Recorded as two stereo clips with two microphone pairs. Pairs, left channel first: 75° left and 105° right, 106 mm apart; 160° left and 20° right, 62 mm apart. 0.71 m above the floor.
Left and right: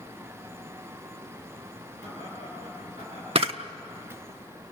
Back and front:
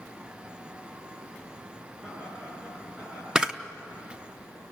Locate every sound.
2.0 s laughter: 100° right, 8.5 m; by 3.2 s 90° right, 9 m
3.4 s a camera shutter: 95° right, 0.9 m